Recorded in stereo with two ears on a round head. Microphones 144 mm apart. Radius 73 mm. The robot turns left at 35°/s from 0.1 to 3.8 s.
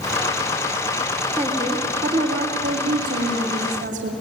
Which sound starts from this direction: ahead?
A woman speaking, at 1.4 s.